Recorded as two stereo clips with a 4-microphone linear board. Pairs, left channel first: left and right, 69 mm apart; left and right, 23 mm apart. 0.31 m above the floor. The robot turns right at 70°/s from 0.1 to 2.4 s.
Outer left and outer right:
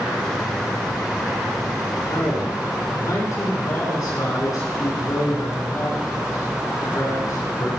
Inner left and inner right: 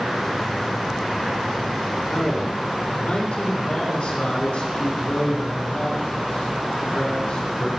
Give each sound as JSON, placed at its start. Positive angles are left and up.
{"t": 2.1, "sound": "a man speaking", "side_deg": 70, "distance_m": 3.5}